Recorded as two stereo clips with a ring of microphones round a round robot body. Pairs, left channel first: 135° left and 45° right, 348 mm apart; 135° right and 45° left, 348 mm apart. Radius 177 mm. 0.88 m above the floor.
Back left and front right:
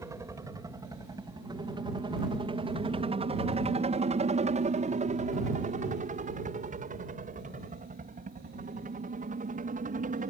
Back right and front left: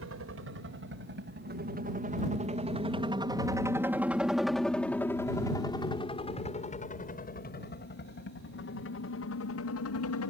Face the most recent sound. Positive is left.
turn(degrees=-105)